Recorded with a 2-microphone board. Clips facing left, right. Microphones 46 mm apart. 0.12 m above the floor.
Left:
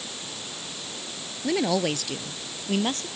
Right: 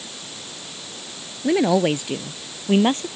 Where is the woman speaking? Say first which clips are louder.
Right 6 dB; 15° right (ahead or behind); by 3.1 s 30° right (ahead or behind).